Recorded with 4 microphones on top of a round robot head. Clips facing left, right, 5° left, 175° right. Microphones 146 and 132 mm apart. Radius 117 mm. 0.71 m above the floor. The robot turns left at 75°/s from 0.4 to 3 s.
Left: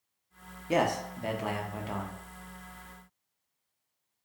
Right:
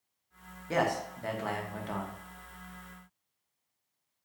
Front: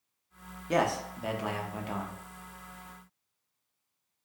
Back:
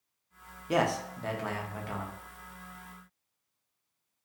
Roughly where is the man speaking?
Left.